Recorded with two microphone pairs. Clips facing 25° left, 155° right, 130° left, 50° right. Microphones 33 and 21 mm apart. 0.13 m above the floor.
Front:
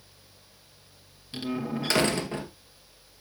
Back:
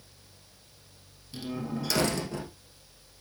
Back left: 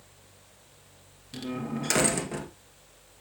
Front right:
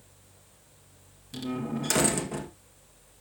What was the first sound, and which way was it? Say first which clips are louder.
A door slam: front 3 dB, front right 1 dB; 55° left.